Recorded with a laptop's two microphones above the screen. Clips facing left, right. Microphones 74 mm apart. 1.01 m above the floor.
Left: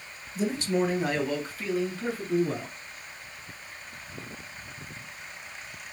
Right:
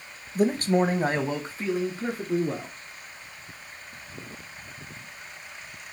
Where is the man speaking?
50° right (ahead or behind), 0.8 m; by 2.7 s 15° right (ahead or behind), 2.5 m.